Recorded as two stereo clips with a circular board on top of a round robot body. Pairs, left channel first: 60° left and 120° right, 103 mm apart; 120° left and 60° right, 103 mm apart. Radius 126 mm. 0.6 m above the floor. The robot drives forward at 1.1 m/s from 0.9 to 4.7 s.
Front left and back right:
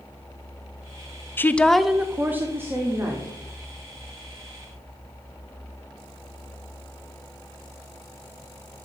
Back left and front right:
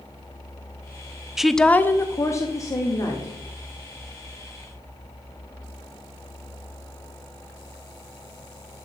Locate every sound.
1.4 s a woman speaking: 20° left, 0.8 m; by 3.3 s 175° left, 1.9 m